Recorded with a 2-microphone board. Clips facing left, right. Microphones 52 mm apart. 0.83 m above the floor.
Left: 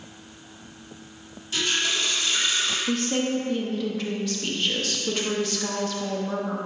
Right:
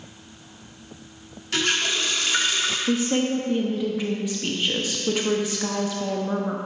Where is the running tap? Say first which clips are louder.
Right 2 dB; 60° right (ahead or behind), 1.1 m.